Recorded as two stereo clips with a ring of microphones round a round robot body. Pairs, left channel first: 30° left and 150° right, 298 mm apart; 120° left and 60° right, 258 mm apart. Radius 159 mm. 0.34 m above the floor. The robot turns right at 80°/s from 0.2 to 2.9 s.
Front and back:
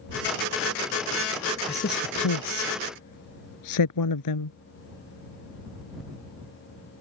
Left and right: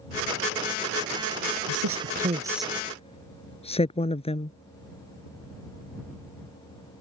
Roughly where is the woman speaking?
Ahead right.